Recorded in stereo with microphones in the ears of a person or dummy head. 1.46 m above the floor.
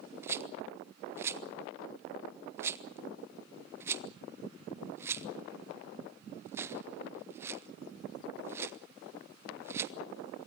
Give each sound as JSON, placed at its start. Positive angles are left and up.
{"t": 0.2, "sound": "a rattle", "side_deg": -15, "distance_m": 1.1}